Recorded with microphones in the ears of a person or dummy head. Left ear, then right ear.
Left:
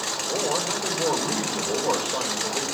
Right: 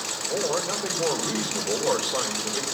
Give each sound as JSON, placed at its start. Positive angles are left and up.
{"t": 0.3, "sound": "a man speaking", "side_deg": -35, "distance_m": 5.0}